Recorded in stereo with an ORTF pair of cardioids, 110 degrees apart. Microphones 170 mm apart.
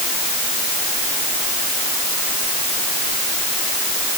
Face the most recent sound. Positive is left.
No sound to turn to.